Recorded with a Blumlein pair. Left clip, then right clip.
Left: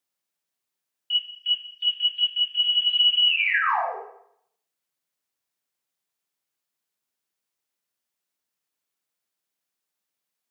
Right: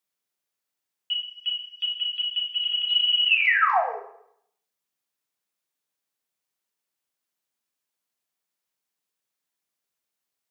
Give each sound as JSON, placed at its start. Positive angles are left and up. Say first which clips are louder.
{"t": 1.1, "sound": "an alarm", "louder": "left 4 dB", "azimuth_deg": -70, "distance_m": 0.8}